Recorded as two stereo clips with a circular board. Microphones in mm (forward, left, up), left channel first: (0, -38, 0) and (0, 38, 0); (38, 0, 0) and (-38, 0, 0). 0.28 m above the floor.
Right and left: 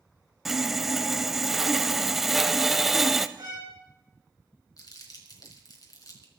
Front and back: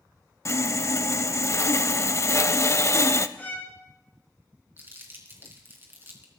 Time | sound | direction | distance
0.5 | sawing | 5° left | 0.7 m
3.4 | a violin | 65° left | 4.5 m
4.8 | crumpling | 120° right | 3.5 m